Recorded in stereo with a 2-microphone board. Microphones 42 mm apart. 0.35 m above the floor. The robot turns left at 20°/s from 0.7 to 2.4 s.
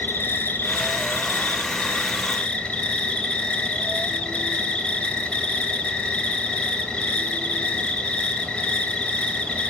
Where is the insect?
60° left, 3.5 m; by 9.7 s 30° left, 3.5 m.